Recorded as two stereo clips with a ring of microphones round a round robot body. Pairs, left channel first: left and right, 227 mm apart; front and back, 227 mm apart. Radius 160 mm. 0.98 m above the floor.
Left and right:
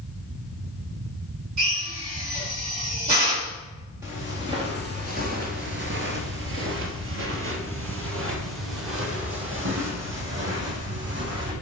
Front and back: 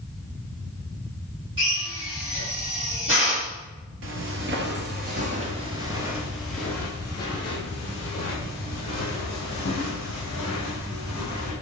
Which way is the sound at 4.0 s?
170° right.